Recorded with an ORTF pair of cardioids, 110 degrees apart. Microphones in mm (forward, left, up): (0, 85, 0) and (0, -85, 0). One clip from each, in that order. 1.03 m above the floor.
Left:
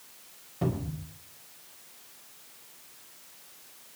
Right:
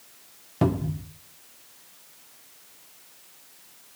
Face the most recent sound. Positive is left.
turn(degrees=-65)